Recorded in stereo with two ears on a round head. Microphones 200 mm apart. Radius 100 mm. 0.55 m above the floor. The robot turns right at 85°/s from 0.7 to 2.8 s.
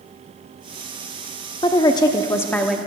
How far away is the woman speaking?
About 0.6 m.